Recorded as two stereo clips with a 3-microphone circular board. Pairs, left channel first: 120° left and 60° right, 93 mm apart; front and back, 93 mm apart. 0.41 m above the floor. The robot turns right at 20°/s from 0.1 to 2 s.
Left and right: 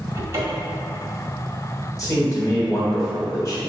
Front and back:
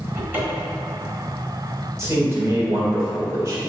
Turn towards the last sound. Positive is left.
turn(degrees=145)